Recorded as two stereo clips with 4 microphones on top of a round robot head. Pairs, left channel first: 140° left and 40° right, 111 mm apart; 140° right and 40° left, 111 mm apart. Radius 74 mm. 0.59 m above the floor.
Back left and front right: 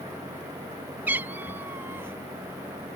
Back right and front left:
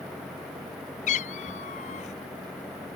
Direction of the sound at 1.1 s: 115° right.